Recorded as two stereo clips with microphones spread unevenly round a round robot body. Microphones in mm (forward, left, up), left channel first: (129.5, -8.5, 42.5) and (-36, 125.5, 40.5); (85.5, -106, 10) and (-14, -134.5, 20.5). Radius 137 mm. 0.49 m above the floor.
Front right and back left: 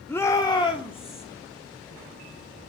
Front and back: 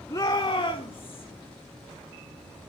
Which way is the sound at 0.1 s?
35° left.